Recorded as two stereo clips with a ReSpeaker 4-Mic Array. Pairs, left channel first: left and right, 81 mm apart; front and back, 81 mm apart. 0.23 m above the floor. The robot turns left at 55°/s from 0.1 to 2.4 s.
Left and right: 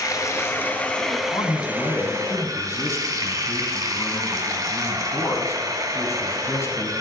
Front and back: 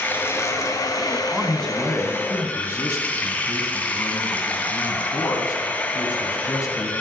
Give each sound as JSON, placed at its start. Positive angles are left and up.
{"t": 0.0, "sound": "running water", "azimuth_deg": 60, "distance_m": 1.5}
{"t": 1.3, "sound": "a man speaking", "azimuth_deg": 100, "distance_m": 2.5}